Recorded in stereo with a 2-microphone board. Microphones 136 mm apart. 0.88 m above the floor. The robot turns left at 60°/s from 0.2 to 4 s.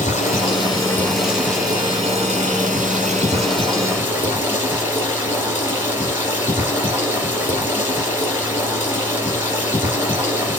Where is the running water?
60° left, 3.5 m; by 10.6 s 165° right, 3.5 m.